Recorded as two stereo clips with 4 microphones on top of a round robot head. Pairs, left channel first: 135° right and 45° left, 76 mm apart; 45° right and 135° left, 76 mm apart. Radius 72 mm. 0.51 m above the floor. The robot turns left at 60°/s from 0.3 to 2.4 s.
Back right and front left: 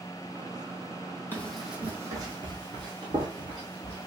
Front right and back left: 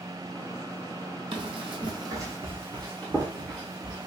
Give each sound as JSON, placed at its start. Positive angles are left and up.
{"t": 1.3, "sound": "running footsteps", "azimuth_deg": 160, "distance_m": 0.7}